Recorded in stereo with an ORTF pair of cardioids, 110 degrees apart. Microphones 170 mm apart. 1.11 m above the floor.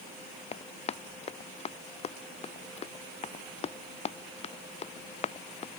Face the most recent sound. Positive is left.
turn(degrees=40)